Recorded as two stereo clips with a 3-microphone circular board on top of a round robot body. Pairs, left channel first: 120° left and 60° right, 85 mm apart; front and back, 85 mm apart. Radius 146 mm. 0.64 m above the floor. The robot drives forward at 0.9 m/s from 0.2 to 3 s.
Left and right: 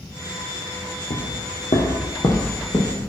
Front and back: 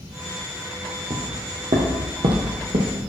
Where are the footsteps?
135° left, 1.3 m; by 3.1 s 175° right, 1.9 m.